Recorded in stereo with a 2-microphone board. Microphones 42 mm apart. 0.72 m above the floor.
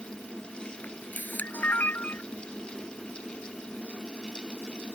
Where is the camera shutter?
45° left (ahead or behind).